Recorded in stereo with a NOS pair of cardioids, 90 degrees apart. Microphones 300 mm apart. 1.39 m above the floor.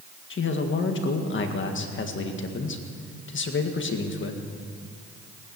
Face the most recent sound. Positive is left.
turn(degrees=40)